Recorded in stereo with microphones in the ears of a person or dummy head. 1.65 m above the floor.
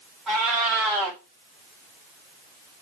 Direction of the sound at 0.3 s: Centre (ahead or behind).